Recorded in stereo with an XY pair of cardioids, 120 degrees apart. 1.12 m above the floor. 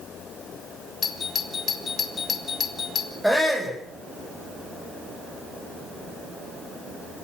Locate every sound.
1.0 s a doorbell: 35° left, 4 m
3.2 s a shout: 5° right, 6.5 m